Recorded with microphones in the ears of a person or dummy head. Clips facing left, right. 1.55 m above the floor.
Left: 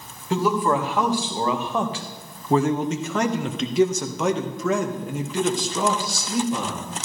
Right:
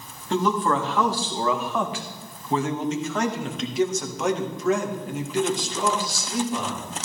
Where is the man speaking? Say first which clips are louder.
Left 1 dB; 10° left (ahead or behind), 2 m; by 6.9 s 70° left (ahead or behind), 3 m.